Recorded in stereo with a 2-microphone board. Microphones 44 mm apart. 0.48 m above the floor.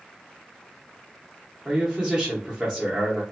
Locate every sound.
1.6 s a man speaking: 15° right (ahead or behind), 0.8 m